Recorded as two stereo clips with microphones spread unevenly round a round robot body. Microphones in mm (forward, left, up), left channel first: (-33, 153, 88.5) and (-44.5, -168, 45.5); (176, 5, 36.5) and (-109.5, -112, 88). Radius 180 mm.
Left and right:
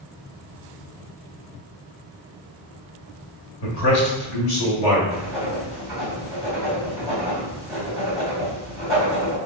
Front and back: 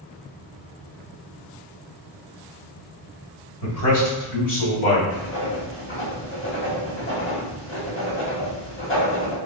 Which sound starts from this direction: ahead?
Writing, at 5.1 s.